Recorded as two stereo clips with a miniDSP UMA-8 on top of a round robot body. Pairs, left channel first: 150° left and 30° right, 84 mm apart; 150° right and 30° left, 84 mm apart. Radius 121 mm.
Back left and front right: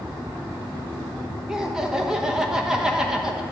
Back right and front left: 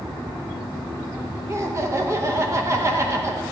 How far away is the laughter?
About 1.2 m.